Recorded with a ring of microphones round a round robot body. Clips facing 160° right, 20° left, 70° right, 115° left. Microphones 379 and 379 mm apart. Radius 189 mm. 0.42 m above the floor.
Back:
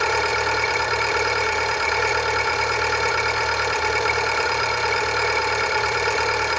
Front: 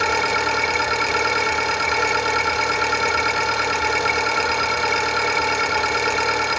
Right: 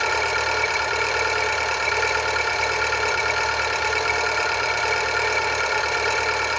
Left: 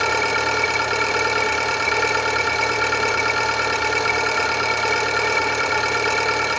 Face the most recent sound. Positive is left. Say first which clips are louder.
# even, left 3 dB
turn(degrees=70)